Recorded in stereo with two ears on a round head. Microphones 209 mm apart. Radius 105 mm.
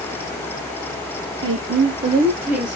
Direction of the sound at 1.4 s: 60° right (ahead or behind).